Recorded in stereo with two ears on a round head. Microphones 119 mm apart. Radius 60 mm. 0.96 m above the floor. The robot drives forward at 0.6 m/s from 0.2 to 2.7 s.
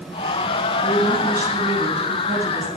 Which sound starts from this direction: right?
A woman speaking, at 0.8 s.